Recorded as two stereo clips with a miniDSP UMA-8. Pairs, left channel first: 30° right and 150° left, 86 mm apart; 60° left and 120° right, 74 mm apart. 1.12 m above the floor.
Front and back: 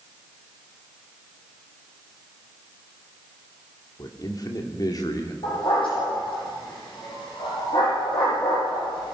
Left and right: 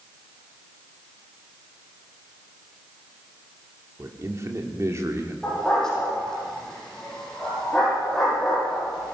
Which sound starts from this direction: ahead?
A dog barking, at 5.4 s.